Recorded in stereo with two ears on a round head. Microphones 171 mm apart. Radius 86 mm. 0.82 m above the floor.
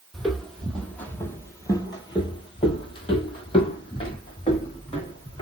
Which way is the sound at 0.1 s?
Centre (ahead or behind).